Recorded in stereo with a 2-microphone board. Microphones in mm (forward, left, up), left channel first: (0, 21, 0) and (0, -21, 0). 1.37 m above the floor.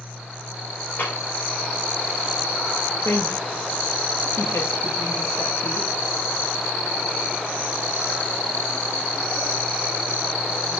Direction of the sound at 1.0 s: 50° left (ahead or behind).